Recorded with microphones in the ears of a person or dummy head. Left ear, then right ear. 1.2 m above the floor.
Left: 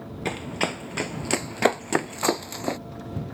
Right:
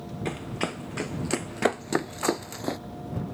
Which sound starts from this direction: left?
Running footsteps, at 0.2 s.